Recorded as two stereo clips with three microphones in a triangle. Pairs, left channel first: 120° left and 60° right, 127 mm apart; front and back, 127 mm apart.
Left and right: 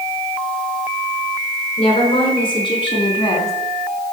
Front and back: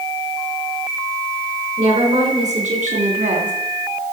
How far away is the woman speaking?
About 5 m.